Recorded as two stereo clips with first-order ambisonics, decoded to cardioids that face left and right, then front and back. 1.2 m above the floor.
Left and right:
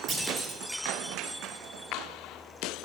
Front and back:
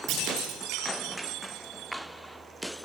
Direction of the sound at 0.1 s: 150° right.